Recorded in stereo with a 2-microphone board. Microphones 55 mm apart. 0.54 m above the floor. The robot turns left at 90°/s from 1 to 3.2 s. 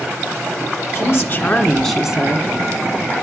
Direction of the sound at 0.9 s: 80° left.